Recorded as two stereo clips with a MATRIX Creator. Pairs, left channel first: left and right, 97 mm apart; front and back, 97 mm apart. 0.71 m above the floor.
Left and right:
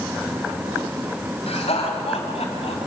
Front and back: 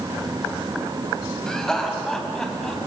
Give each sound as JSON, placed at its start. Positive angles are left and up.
{"t": 1.5, "sound": "laughter", "azimuth_deg": 85, "distance_m": 5.0}